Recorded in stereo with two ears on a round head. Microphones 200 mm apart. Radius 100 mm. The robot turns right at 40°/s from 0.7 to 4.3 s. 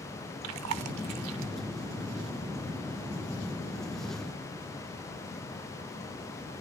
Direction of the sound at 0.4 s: 75° right (ahead or behind).